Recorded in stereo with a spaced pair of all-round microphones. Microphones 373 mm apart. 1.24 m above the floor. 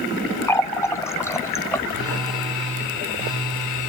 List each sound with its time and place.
0.5 s a running tap: 5° left (ahead or behind), 0.7 m
1.9 s a phone buzzing: 85° right, 4 m